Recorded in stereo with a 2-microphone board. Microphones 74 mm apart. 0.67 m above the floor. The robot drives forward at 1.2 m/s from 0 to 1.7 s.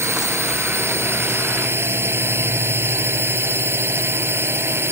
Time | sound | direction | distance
0.0 | a drone | 35° right (ahead or behind) | ?